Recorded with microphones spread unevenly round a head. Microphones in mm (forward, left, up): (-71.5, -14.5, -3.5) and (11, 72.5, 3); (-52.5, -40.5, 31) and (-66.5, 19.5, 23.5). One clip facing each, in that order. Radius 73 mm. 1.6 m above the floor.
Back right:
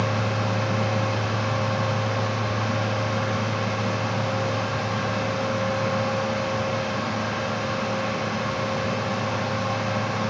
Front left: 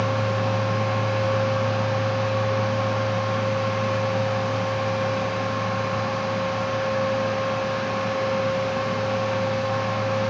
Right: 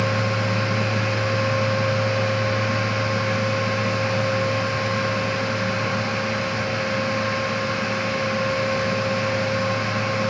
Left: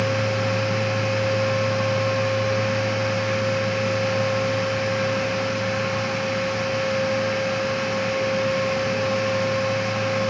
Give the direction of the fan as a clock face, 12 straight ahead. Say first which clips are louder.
Front left 2 dB, even; 4 o'clock.